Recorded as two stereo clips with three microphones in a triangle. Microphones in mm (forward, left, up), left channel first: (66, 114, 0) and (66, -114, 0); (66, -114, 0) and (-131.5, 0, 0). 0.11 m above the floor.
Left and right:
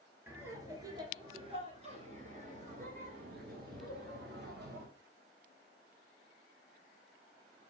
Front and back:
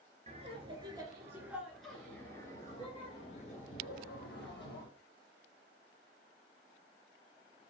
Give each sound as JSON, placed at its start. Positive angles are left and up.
{"t": 0.3, "sound": "laughter", "azimuth_deg": -165, "distance_m": 1.7}